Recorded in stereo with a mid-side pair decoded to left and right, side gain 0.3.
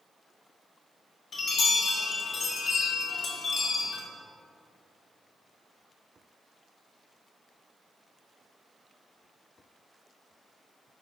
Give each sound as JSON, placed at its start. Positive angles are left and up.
{"t": 1.3, "sound": "a chime", "azimuth_deg": 65, "distance_m": 1.8}